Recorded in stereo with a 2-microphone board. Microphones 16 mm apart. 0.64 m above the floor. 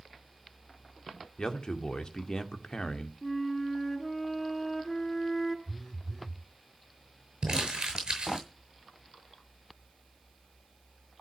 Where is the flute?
20° left (ahead or behind), 3.5 m.